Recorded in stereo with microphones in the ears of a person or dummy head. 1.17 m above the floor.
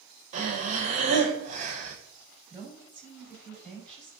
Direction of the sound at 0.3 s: 35° right (ahead or behind).